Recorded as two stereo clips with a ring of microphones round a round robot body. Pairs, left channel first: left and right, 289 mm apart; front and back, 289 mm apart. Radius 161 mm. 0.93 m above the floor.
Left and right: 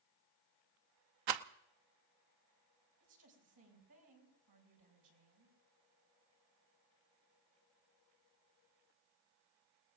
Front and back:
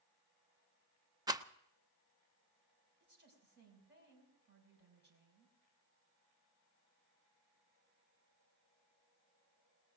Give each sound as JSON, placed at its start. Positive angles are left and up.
{"t": 1.3, "sound": "a rattle", "azimuth_deg": -100, "distance_m": 0.8}
{"t": 3.0, "sound": "a woman speaking", "azimuth_deg": -125, "distance_m": 6.0}